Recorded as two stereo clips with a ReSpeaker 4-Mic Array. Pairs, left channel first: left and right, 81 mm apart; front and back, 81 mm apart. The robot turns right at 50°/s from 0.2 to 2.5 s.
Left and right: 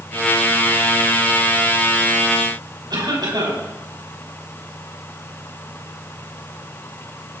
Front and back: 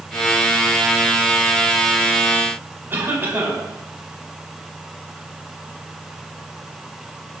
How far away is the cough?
About 7.5 m.